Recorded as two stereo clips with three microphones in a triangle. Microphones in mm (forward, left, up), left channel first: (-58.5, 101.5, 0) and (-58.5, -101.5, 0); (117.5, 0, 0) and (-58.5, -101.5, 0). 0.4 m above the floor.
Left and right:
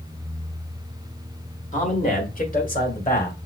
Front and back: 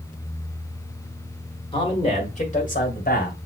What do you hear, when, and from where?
1.7 s a man speaking: 80° left, 1.5 m; by 3.5 s 55° left, 2 m